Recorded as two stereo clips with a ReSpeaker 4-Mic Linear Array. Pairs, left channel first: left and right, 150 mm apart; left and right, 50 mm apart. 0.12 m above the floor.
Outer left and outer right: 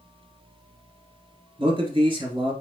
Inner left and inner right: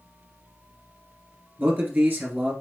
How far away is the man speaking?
About 1.4 m.